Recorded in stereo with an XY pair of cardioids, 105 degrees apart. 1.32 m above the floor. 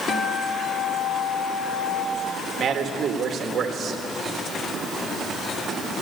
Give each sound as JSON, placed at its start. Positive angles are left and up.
{"t": 0.1, "sound": "a guitar", "azimuth_deg": 45, "distance_m": 2.0}
{"t": 2.6, "sound": "a man speaking", "azimuth_deg": -50, "distance_m": 1.5}